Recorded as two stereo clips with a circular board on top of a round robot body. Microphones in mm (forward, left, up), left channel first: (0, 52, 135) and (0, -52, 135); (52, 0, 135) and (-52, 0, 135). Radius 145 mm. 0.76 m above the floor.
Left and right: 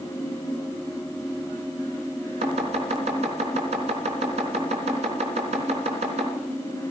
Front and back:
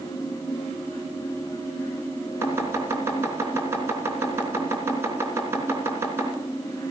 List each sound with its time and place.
2.4 s chopping: 110° right, 3.5 m